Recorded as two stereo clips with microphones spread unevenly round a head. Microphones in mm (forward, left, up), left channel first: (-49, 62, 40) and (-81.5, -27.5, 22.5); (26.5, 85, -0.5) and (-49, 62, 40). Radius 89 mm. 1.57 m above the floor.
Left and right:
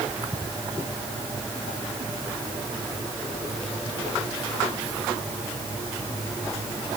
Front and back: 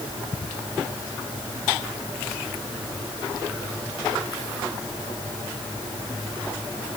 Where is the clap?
I don't hear a clap.